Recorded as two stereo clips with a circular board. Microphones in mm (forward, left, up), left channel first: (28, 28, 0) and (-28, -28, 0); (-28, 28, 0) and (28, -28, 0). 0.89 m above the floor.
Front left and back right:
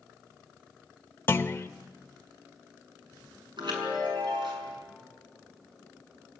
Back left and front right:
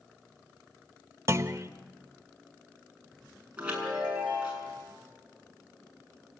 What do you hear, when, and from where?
1.3 s a clunk: 5° right, 0.9 m
3.6 s a chime: 120° right, 6.5 m